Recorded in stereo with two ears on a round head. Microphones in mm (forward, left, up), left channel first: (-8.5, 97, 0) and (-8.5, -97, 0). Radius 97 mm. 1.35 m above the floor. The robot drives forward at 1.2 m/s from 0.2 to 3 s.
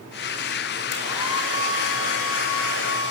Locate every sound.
0.9 s a hair dryer: 85° left, 4.5 m; by 3.1 s 60° left (ahead or behind), 5.5 m